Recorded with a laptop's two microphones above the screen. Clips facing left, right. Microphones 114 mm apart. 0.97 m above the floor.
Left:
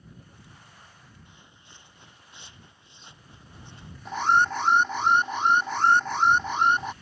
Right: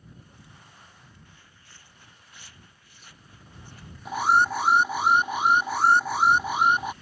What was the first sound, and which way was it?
Footsteps, 20° left (ahead or behind).